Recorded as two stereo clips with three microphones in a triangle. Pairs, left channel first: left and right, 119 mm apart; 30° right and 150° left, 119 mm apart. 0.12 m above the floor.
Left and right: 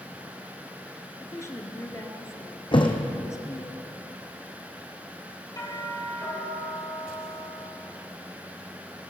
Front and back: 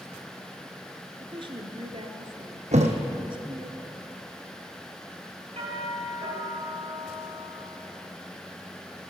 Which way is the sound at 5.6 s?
145° left.